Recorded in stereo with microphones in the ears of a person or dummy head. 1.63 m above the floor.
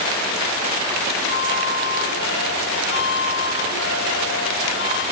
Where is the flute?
65° left (ahead or behind).